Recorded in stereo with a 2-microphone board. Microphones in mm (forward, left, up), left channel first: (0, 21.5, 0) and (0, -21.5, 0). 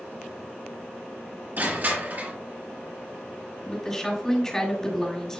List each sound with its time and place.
1.6 s crushing: 45° right (ahead or behind), 3 m
3.6 s a woman speaking: 10° left (ahead or behind), 2.5 m